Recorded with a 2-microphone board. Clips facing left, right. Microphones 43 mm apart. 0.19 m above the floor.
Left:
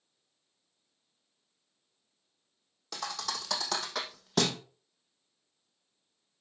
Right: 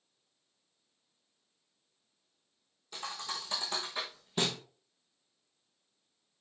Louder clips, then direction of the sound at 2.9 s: Left 3 dB; 85° left.